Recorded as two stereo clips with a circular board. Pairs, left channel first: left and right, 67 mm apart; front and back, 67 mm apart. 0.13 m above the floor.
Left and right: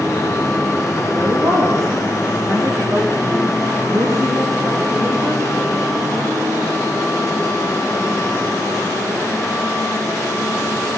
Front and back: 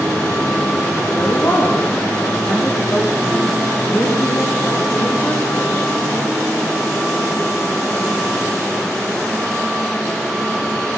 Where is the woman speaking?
50° right, 6.5 m.